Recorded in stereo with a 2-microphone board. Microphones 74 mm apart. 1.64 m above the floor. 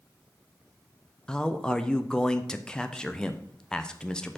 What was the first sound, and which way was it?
A man speaking, 10° left (ahead or behind).